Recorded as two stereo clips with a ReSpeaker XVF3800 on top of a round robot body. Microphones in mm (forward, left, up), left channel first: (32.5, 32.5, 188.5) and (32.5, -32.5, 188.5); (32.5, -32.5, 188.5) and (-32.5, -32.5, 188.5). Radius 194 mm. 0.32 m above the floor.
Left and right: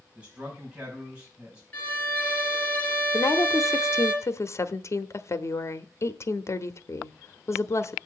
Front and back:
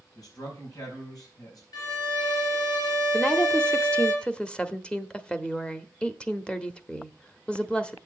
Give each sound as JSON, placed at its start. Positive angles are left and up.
{"t": 0.1, "sound": "a man speaking", "azimuth_deg": -20, "distance_m": 4.0}
{"t": 1.7, "sound": "a violin", "azimuth_deg": 25, "distance_m": 3.5}
{"t": 3.1, "sound": "a woman speaking", "azimuth_deg": 70, "distance_m": 1.1}